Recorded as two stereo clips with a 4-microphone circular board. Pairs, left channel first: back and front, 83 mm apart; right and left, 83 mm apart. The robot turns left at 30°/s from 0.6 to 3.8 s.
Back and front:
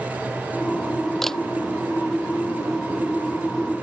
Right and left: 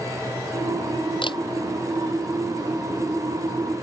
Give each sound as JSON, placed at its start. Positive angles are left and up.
{"t": 1.2, "sound": "a camera shutter", "azimuth_deg": -95}